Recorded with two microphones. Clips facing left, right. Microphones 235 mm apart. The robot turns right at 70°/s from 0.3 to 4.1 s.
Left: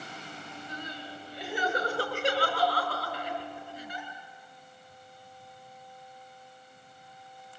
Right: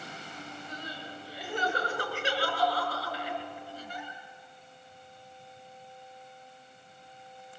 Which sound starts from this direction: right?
Crying, at 0.7 s.